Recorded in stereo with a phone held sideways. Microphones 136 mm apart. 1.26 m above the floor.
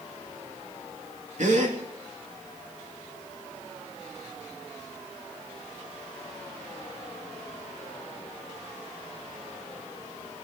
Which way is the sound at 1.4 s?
65° right (ahead or behind).